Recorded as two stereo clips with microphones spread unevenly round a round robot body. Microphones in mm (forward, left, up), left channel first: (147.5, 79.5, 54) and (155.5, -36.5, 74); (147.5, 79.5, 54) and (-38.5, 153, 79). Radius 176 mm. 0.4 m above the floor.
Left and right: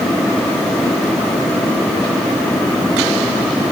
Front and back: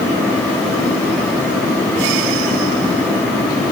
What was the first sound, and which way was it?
Only background noise.